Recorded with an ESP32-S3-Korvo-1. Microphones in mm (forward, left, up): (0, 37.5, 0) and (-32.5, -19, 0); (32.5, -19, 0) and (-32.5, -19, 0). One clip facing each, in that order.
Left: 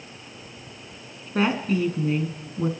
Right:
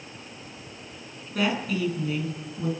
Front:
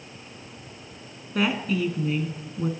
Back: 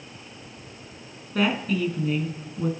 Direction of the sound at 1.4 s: 85° left.